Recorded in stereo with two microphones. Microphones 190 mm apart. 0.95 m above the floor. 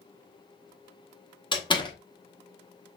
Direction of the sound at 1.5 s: 25° left (ahead or behind).